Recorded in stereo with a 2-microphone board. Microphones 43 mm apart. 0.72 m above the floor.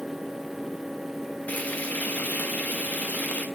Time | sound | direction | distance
1.5 | frying | 35° left (ahead or behind) | 1.2 m